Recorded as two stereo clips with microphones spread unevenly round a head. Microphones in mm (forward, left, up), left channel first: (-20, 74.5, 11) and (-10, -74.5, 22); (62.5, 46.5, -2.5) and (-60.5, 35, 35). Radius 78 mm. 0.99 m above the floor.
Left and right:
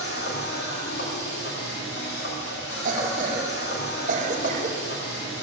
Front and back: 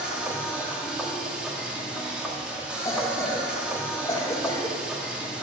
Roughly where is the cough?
Ahead right.